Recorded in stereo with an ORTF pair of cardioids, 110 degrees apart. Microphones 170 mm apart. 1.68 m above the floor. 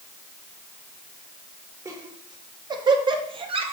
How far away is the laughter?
About 2.5 m.